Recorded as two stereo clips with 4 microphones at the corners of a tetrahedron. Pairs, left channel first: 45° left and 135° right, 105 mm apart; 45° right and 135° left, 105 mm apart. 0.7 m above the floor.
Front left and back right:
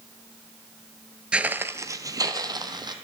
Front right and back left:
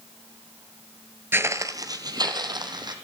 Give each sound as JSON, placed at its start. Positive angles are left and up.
{"t": 1.3, "sound": "footsteps", "azimuth_deg": 160, "distance_m": 0.7}